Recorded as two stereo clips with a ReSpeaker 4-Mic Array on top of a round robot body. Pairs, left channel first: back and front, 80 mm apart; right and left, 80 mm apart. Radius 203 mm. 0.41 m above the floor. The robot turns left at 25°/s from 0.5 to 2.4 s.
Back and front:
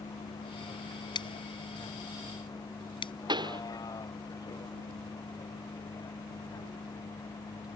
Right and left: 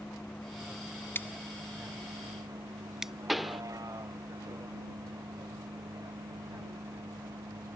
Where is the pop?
Straight ahead.